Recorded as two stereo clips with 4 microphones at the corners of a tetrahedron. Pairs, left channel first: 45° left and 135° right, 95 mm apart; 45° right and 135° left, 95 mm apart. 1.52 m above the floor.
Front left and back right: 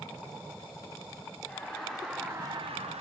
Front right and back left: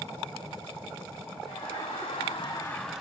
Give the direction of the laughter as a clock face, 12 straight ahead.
1 o'clock.